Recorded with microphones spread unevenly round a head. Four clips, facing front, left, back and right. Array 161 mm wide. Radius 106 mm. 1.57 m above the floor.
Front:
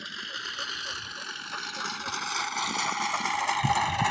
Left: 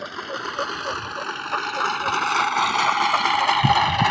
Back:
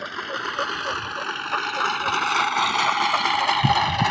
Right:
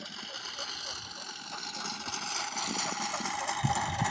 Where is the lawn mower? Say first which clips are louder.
Left 15 dB, back 11 dB; 115° left; by 4.1 s 80° left.